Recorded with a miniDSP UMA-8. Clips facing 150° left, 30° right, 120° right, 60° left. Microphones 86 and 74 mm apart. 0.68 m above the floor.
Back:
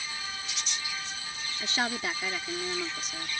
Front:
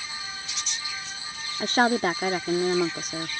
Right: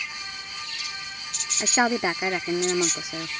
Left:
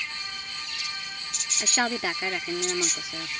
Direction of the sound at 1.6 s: 55° right.